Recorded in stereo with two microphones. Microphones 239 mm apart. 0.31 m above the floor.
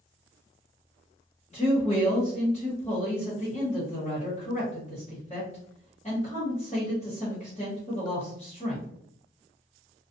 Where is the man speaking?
25° left (ahead or behind), 1.2 m.